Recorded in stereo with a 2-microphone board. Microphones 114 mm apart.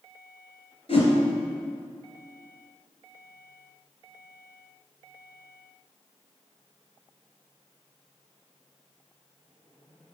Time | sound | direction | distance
0.9 | a whoosh | 50° left (ahead or behind) | 3.5 m